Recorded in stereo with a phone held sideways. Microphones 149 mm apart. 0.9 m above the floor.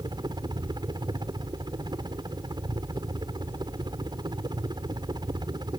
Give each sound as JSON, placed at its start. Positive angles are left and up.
{"t": 0.0, "sound": "a helicopter", "side_deg": -30}